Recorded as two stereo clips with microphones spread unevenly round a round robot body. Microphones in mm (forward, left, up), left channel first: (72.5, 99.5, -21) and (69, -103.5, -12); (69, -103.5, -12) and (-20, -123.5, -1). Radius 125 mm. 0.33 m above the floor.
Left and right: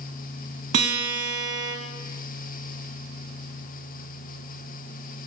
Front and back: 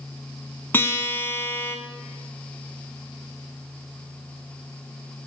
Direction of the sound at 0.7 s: 60° right.